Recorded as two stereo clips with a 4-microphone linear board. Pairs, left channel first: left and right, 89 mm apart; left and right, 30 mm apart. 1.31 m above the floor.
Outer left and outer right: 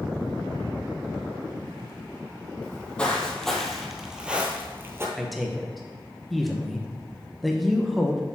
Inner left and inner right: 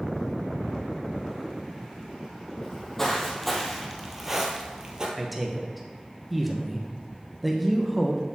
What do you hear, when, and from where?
2.6 s footsteps: 15° left (ahead or behind), 2 m; by 5.1 s 30° right (ahead or behind), 1.5 m
5.2 s a man speaking: centre (ahead or behind), 1.0 m